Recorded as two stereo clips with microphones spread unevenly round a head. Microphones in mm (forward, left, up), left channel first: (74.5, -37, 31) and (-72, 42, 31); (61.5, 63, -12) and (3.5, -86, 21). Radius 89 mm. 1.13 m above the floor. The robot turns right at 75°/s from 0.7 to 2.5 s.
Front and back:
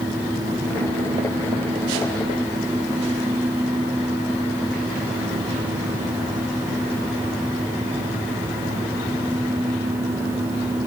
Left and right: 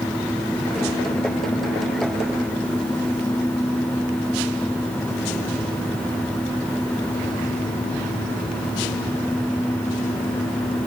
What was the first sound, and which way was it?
Only background noise.